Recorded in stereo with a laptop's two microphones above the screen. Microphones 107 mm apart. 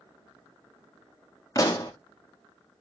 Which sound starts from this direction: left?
A pop, at 1.6 s.